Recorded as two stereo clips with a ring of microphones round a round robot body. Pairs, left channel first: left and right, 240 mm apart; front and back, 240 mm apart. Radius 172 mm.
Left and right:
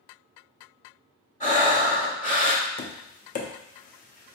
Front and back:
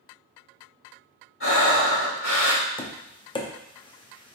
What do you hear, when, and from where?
1.4 s breathing: 30° left, 1.4 m
2.8 s tapping: 60° left, 0.7 m